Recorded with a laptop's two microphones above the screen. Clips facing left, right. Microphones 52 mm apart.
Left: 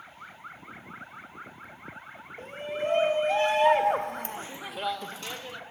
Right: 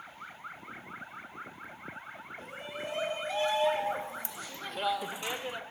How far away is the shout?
About 3 m.